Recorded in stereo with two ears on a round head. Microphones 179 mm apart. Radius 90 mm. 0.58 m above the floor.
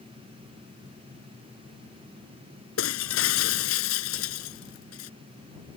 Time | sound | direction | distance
2.8 | breaking glass | 85° left | ?